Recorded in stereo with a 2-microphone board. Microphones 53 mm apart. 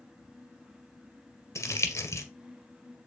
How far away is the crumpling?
About 1.6 m.